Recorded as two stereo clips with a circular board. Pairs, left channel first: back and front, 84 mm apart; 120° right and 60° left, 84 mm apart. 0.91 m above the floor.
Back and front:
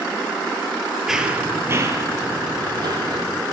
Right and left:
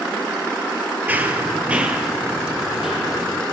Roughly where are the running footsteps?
Left.